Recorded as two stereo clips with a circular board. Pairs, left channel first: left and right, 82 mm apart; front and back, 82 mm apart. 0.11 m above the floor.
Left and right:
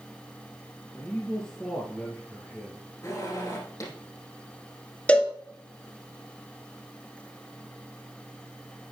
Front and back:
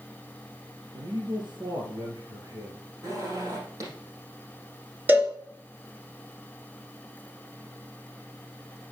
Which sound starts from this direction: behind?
A man speaking, at 0.9 s.